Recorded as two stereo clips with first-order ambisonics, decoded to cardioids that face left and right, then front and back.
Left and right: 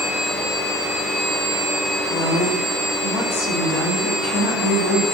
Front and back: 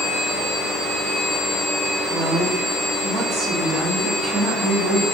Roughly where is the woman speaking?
Behind left.